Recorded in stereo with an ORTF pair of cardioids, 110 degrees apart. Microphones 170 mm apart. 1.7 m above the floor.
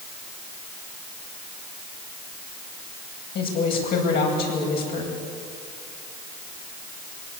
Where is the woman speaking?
65° left, 9.5 m.